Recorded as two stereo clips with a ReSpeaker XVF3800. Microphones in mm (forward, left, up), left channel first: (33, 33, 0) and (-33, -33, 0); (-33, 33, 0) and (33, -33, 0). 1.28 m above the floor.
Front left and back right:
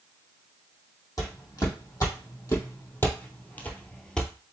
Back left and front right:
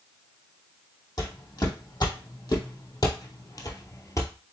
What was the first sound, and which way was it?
Footsteps, 95° left.